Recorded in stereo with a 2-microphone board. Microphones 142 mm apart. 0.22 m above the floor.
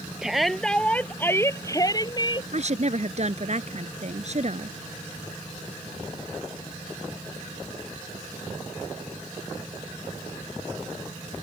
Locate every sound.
0.2 s a shout: 5° right (ahead or behind); by 2.4 s 35° left (ahead or behind)
2.5 s a woman speaking: 50° right (ahead or behind)